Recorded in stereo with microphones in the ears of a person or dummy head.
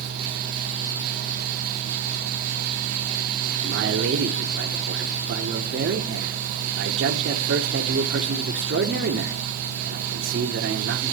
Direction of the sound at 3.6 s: 60° right (ahead or behind).